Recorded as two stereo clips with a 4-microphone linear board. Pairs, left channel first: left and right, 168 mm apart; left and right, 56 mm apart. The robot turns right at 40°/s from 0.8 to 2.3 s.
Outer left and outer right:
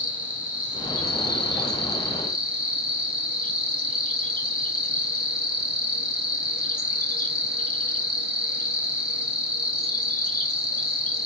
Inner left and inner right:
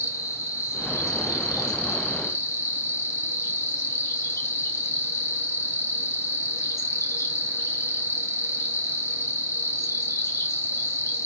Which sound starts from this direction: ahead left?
An insect, at 0.0 s.